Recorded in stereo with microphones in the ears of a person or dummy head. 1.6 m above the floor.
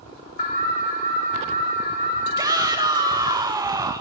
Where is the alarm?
35° left (ahead or behind), 5 m.